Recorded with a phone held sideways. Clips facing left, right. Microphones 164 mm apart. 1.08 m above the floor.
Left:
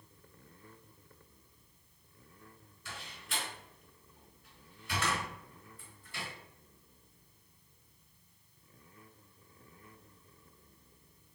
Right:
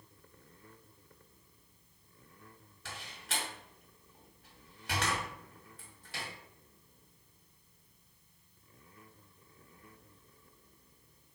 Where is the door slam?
75° right (ahead or behind), 1.8 m.